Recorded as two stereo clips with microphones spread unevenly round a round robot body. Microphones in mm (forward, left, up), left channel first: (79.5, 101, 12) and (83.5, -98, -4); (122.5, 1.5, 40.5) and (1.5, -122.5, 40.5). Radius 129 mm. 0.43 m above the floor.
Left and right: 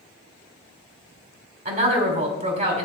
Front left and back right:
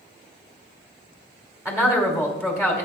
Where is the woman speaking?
50° right, 2.5 m.